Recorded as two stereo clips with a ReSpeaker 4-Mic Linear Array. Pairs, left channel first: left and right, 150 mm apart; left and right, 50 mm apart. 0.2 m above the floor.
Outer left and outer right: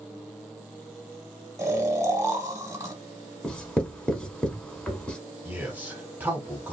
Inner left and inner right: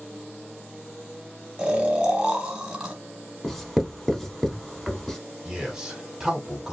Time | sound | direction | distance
1.6 | snoring | 20° right (ahead or behind) | 0.9 m
3.4 | writing | 5° left (ahead or behind) | 0.8 m
5.5 | a man speaking | 15° right (ahead or behind) | 1.3 m